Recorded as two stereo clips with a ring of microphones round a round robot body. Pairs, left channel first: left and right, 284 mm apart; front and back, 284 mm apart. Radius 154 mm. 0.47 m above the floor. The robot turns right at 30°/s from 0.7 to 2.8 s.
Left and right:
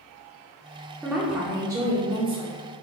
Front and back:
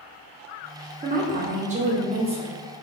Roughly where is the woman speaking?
Behind.